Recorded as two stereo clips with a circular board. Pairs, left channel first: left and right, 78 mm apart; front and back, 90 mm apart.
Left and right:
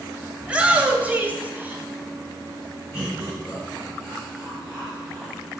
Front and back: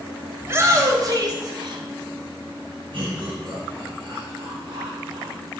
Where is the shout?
155° right, 1.5 m.